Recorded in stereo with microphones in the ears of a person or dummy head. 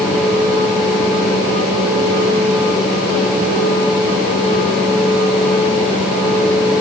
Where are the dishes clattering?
I don't hear dishes clattering.